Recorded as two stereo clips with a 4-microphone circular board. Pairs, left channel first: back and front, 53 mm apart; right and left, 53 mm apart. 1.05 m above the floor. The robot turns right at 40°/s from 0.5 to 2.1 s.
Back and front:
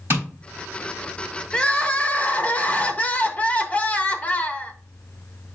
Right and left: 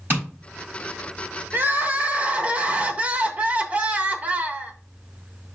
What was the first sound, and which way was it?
Tapping, 40° left.